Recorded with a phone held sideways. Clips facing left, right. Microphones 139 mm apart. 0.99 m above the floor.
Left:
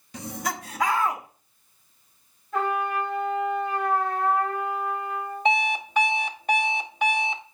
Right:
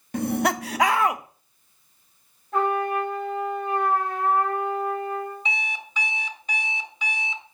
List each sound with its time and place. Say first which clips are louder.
0.1 s laughter: right 9 dB; 55° right (ahead or behind), 0.6 m; by 1.2 s 70° right (ahead or behind), 0.8 m
2.5 s a trumpet: right 3 dB; 55° right (ahead or behind), 4.5 m
5.5 s an alarm clock: left 10 dB; 55° left (ahead or behind), 0.6 m